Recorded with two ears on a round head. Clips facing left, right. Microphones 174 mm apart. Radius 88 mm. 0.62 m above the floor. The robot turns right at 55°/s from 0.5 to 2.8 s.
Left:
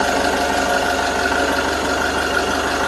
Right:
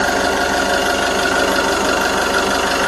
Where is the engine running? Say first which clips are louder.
Right 1 dB; 175° right, 1.1 m; by 2.9 s 50° right, 1.1 m.